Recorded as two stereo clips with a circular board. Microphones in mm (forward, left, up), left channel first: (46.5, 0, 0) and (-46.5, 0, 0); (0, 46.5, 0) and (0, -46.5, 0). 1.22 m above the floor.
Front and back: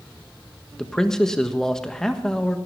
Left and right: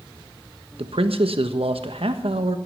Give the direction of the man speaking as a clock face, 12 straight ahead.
3 o'clock.